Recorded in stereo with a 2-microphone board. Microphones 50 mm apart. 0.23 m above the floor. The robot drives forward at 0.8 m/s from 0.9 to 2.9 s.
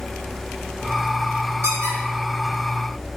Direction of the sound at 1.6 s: 75° right (ahead or behind).